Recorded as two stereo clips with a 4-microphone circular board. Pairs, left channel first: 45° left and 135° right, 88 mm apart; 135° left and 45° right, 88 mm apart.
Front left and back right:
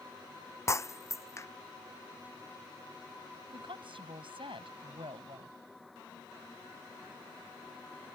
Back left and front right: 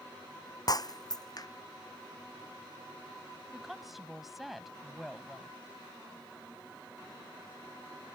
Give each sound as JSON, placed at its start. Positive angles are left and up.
{"t": 0.7, "sound": "breaking glass", "azimuth_deg": 95}
{"t": 3.5, "sound": "a woman speaking", "azimuth_deg": -130}